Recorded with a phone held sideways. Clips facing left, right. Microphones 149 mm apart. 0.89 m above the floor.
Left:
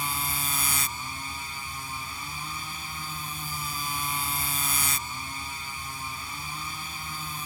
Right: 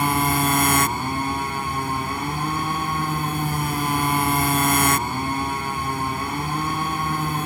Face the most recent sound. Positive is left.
turn(degrees=-75)  # may be behind; listen again after turning